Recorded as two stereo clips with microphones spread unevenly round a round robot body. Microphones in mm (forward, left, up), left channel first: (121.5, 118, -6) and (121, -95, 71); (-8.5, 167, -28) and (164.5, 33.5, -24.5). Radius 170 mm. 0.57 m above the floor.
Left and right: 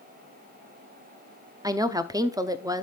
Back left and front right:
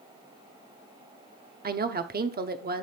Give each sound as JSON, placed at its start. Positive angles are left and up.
{"t": 1.6, "sound": "a woman speaking", "azimuth_deg": 0, "distance_m": 0.9}